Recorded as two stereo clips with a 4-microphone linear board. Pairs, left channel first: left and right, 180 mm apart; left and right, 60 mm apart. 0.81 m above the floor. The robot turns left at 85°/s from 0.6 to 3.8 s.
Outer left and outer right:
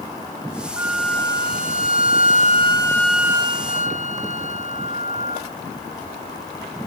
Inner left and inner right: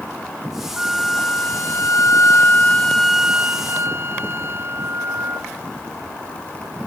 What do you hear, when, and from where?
0.8 s a flute: 160° right, 0.5 m; by 5.5 s 60° right, 0.5 m